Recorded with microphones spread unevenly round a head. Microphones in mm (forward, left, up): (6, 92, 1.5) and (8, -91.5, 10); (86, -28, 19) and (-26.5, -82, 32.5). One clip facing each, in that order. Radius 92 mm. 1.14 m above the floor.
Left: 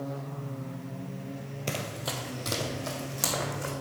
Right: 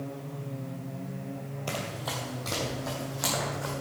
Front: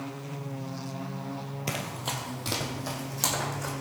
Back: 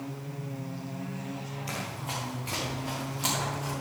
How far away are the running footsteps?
About 1.7 m.